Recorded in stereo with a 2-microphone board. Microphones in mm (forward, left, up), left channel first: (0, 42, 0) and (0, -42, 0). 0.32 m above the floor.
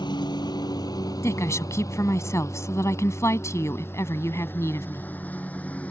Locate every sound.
0.0 s a lawn mower: 60° left (ahead or behind); by 5.9 s 15° left (ahead or behind)
1.2 s a woman speaking: 35° left (ahead or behind)